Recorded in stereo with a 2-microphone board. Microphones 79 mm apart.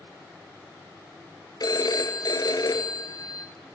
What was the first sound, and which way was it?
A phone ringing, 60° left (ahead or behind).